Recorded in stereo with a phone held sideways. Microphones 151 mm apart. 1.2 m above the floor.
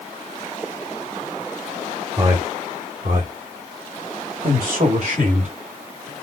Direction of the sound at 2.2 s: 25° right (ahead or behind).